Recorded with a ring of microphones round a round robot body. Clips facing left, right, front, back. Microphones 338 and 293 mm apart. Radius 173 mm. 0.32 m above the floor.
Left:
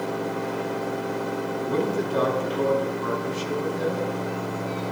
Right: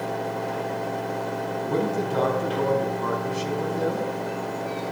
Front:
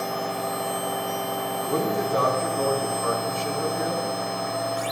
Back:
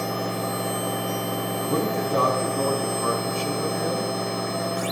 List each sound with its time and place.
1.6 s a man speaking: 125° right, 4 m